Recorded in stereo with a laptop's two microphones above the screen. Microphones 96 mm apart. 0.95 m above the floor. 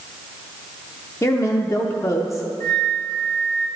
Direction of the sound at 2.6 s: 35° left (ahead or behind).